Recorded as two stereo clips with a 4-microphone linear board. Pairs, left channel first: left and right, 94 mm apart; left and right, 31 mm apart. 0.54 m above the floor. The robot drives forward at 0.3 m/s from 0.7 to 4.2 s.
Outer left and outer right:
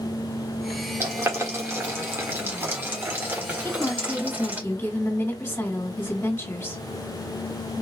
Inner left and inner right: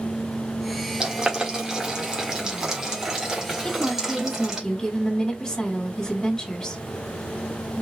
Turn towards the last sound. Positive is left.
turn(degrees=20)  # may be behind; listen again after turning